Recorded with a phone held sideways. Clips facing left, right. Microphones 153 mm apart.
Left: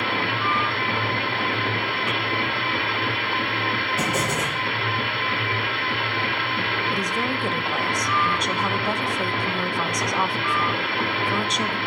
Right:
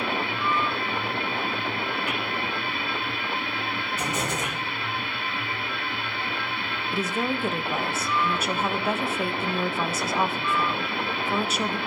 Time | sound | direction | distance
0.0 | a machine running | 70° left (ahead or behind) | 1.1 m
4.0 | an explosion | 65° left (ahead or behind) | 6.5 m
6.9 | a woman speaking | 5° right (ahead or behind) | 0.7 m